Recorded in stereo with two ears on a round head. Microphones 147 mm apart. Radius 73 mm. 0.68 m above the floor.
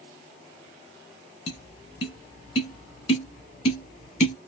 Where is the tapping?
40° left (ahead or behind), 1.6 m.